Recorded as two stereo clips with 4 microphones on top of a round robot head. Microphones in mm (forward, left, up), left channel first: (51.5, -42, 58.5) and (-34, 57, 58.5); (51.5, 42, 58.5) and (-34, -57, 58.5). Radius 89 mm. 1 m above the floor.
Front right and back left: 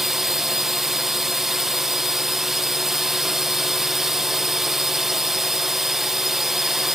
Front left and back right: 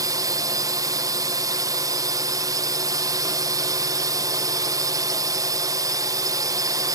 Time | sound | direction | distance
0.0 | a drone | 145° right | ?